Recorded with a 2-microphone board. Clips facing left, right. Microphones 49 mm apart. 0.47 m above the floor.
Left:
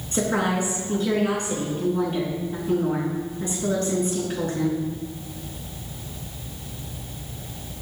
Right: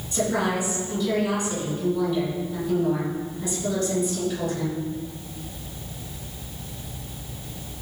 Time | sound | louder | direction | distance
0.1 | a woman speaking | left 1 dB | 40° left (ahead or behind) | 4.5 m